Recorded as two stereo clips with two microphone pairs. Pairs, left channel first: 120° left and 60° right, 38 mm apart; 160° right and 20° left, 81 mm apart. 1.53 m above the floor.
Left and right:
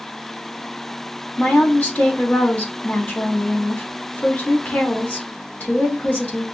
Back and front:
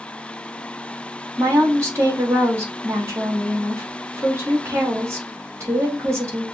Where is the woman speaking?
75° left, 2.5 m.